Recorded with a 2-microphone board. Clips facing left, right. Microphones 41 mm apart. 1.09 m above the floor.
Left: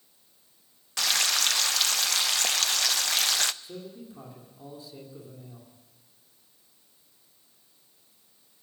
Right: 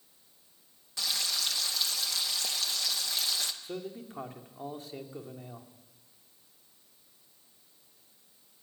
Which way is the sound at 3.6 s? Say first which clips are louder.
Right 2 dB; 55° right (ahead or behind).